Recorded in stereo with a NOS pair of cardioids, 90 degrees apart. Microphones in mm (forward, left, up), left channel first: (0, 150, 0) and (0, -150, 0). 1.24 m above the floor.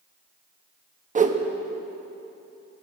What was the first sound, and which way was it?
A whoosh, 25° right.